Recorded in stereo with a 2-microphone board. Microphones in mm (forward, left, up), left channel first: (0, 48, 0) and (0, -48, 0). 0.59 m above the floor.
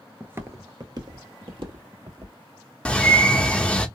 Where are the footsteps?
15° right (ahead or behind), 0.5 m; by 2.4 s 65° right (ahead or behind), 1.5 m.